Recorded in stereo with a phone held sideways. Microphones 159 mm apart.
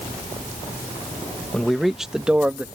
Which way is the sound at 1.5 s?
5° left (ahead or behind).